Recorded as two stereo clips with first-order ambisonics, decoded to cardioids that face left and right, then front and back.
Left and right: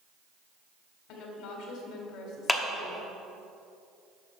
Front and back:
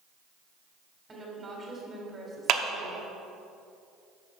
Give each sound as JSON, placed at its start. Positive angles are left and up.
{"t": 1.1, "sound": "a woman speaking", "azimuth_deg": 105, "distance_m": 2.5}
{"t": 2.5, "sound": "a clap", "azimuth_deg": 175, "distance_m": 0.8}